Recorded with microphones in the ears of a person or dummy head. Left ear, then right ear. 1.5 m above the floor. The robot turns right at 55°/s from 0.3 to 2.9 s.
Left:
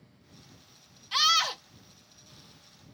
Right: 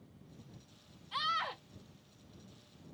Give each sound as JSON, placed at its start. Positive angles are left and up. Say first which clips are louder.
{"t": 1.1, "sound": "a scream", "louder": "left 11 dB", "side_deg": 65}